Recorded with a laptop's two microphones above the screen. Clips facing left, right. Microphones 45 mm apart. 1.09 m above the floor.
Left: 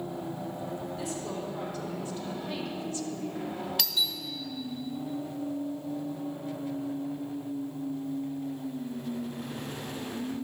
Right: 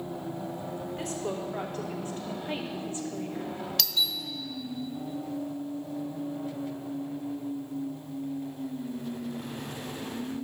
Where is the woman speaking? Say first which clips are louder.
Right 2 dB; 50° right (ahead or behind), 3 m; by 3.6 s 15° right (ahead or behind), 1.5 m.